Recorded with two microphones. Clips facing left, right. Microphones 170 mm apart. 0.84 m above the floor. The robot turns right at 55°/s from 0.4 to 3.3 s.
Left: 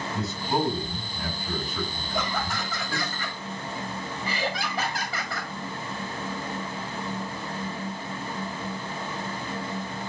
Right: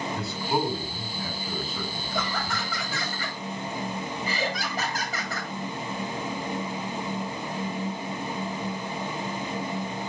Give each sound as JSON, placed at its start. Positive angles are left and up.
{"t": 0.1, "sound": "a man speaking", "side_deg": 20, "distance_m": 5.0}
{"t": 2.1, "sound": "laughter", "azimuth_deg": 160, "distance_m": 3.5}